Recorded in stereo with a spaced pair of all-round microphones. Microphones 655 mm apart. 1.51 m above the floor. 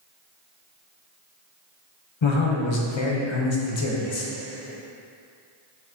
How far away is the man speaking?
About 0.7 m.